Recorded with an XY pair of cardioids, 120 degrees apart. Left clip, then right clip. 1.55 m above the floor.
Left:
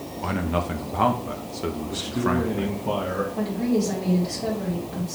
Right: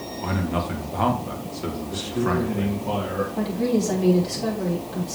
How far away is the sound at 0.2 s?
About 1.3 m.